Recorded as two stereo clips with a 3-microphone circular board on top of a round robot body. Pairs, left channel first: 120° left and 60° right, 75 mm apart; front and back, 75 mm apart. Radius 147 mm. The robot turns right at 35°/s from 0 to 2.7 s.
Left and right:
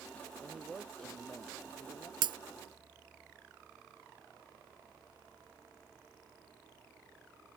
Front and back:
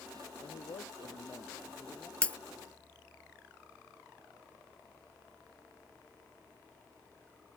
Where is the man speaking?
10° left; by 2.1 s 70° left.